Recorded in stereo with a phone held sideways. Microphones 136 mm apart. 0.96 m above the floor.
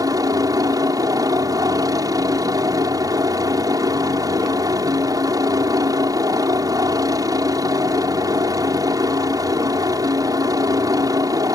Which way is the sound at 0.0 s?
25° right (ahead or behind).